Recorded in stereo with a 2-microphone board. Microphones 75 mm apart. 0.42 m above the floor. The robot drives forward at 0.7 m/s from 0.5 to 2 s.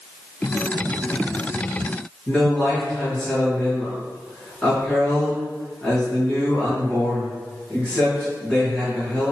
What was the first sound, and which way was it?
A man speaking, 15° left (ahead or behind).